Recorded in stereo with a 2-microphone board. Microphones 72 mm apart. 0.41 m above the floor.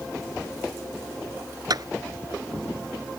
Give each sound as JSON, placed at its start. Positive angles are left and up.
{"t": 1.7, "sound": "a clap", "side_deg": -60}